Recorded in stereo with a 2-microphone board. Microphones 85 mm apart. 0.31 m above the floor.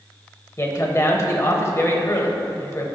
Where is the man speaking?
35° left (ahead or behind), 1.0 m.